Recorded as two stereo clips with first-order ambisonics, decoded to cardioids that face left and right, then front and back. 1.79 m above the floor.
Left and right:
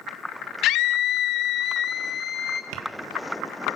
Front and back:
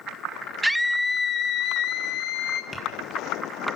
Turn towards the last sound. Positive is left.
turn(degrees=-80)